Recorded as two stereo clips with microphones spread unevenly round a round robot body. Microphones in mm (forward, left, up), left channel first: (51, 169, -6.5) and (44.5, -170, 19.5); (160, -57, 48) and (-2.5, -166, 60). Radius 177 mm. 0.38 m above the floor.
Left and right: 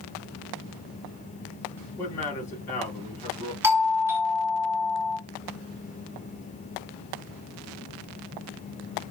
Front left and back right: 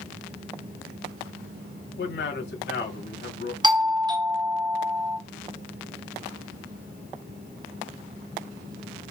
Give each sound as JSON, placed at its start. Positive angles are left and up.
{"t": 2.0, "sound": "a man speaking", "azimuth_deg": 10, "distance_m": 3.0}
{"t": 3.6, "sound": "a doorbell", "azimuth_deg": -175, "distance_m": 1.7}